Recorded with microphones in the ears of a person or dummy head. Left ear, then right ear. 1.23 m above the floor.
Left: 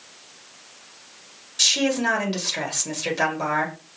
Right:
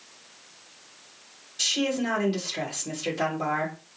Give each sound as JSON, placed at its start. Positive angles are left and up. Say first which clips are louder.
{"t": 1.6, "sound": "a woman speaking", "louder": "left 6 dB", "side_deg": 25, "distance_m": 2.0}